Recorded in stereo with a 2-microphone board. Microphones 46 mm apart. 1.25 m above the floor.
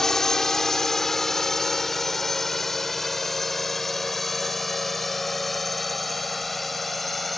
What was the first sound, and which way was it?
A drone, 10° left (ahead or behind).